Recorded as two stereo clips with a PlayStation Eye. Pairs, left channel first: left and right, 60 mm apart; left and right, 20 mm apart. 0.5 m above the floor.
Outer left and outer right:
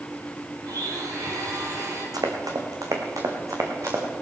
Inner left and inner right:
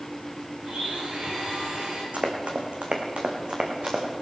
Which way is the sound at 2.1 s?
80° right.